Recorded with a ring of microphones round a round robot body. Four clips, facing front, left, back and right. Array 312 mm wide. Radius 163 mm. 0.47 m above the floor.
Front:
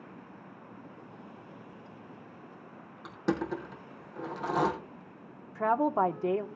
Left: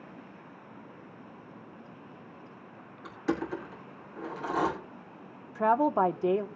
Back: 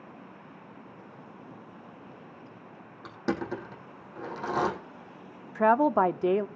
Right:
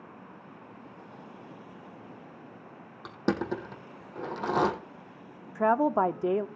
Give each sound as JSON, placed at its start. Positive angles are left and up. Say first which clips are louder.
{"t": 3.0, "sound": "crushing", "louder": "right 2 dB, even", "azimuth_deg": -90, "distance_m": 3.5}
{"t": 5.5, "sound": "a woman speaking", "louder": "even, back 5 dB", "azimuth_deg": -170, "distance_m": 0.7}